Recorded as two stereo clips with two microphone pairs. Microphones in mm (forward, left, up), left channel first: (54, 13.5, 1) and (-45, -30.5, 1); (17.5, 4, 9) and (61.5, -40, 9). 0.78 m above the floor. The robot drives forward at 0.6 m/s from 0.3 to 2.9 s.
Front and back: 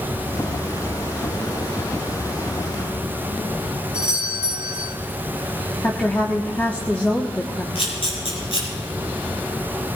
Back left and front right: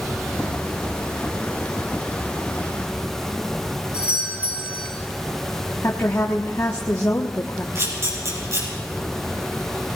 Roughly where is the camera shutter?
Ahead.